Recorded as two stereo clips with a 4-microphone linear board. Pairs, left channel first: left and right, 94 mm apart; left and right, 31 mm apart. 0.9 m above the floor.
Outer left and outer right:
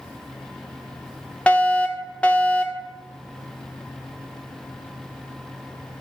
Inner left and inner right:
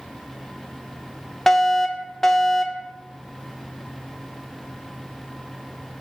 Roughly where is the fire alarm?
Centre.